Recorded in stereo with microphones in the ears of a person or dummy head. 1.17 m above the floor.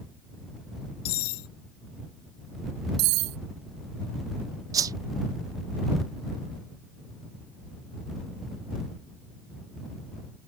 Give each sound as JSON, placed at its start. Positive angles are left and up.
{"t": 1.1, "sound": "cutlery clinking", "side_deg": 65}
{"t": 3.0, "sound": "cutlery clinking", "side_deg": -50}
{"t": 4.7, "sound": "a whoosh", "side_deg": -20}